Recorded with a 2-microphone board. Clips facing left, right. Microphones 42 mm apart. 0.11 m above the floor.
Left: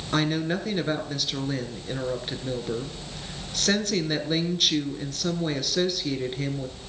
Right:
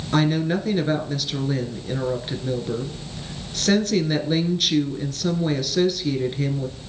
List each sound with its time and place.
0.1 s a woman speaking: centre (ahead or behind), 1.3 m